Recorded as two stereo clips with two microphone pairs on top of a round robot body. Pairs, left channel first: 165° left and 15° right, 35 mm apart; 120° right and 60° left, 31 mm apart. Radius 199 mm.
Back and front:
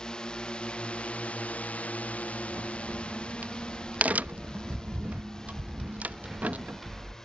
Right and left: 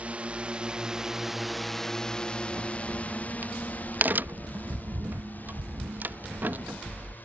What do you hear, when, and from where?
0.0 s a drone: 95° left; by 7.2 s 120° right
2.5 s a crack: 35° left